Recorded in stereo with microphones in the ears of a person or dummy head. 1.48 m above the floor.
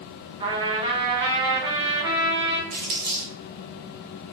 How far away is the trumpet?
About 0.6 m.